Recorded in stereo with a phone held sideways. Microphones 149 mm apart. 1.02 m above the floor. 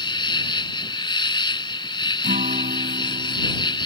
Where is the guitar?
60° right (ahead or behind).